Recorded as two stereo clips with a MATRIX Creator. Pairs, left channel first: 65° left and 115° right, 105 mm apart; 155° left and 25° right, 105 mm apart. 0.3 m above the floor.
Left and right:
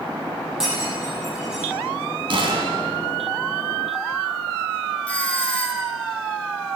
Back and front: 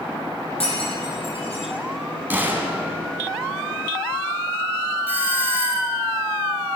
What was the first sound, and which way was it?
Breaking glass, 165° left.